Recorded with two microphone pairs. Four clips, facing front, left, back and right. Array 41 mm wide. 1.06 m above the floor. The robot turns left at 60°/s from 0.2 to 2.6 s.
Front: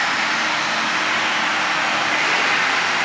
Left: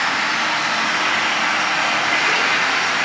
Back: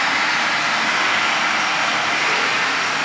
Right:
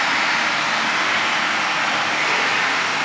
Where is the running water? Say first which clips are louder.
Even, back 1 dB; 130° right, 5.5 m; by 3.0 s 90° left, 5.5 m.